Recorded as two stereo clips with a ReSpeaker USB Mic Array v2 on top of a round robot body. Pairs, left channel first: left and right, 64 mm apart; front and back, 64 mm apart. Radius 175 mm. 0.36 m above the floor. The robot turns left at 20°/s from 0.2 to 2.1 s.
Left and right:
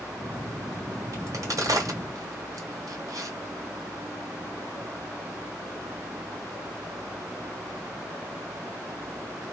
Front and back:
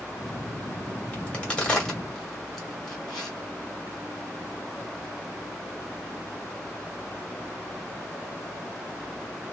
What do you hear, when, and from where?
1.1 s a crack: 65° right, 1.8 m; by 3.3 s 85° right, 1.8 m